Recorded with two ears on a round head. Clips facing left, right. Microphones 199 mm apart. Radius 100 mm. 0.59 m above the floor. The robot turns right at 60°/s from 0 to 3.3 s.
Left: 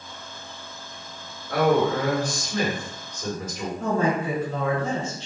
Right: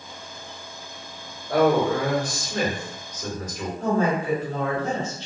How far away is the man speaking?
About 1.4 m.